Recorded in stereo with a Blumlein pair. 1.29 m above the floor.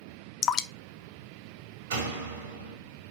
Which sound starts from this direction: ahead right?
A door slam, at 1.9 s.